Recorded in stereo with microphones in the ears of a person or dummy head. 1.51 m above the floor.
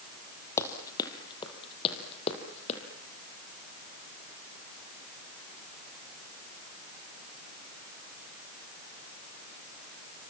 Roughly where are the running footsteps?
Centre.